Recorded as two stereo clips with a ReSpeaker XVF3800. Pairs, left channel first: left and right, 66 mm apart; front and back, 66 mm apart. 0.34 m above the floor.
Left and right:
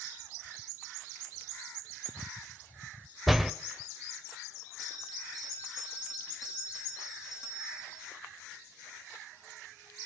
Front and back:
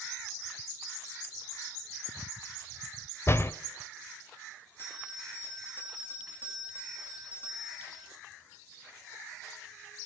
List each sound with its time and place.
3.3 s a door slam: 5° right, 0.8 m
4.8 s a bell: 60° left, 6.5 m